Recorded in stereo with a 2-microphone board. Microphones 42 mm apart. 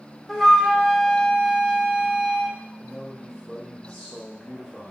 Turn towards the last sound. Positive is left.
turn(degrees=-5)  # may be behind; listen again after turning